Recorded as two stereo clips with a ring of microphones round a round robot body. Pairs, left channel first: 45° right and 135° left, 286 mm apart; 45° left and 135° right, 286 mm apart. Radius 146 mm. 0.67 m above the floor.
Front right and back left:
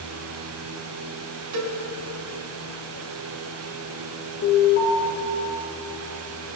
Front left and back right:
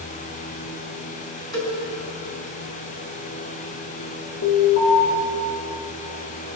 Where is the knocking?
I don't hear knocking.